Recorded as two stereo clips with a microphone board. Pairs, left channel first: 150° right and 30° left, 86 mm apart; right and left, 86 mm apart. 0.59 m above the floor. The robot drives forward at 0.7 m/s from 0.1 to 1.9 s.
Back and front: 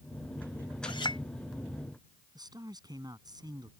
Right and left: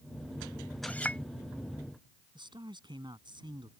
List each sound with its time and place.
0.8 s a clink: 160° right; by 1.2 s 165° right
2.4 s a man speaking: 65° left